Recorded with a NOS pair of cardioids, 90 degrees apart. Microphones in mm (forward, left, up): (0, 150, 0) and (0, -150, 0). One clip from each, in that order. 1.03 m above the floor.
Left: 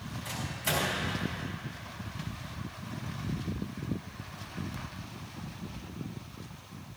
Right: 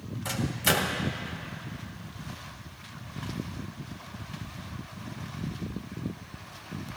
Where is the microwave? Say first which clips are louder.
Right 7 dB; 55° right, 1.6 m.